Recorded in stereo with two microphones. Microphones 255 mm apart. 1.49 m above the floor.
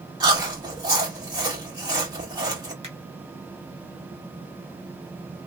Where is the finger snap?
25° right (ahead or behind), 2 m.